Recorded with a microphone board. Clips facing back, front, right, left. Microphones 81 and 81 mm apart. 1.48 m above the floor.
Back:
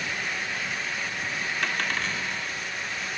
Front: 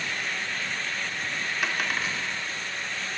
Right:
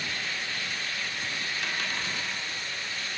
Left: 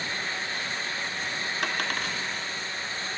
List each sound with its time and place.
1.6 s a dropped coin: 80° left, 1.8 m